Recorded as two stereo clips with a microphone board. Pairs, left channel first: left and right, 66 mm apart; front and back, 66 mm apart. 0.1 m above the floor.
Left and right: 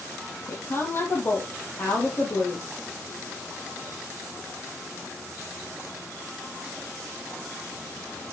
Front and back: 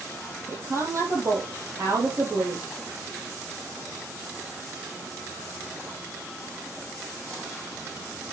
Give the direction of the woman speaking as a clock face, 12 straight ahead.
7 o'clock.